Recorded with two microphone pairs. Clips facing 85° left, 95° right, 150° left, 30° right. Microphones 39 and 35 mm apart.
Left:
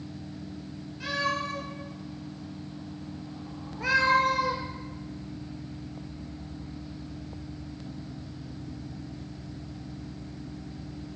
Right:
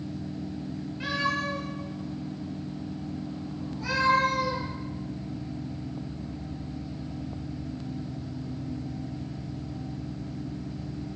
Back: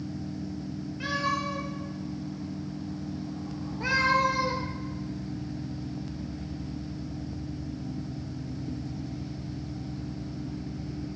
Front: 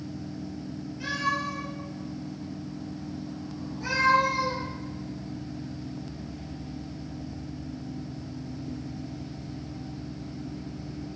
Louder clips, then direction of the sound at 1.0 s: Right 1 dB, even; 155° right.